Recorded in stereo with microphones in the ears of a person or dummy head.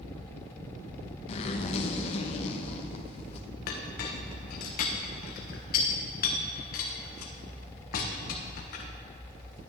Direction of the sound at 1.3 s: 35° left (ahead or behind).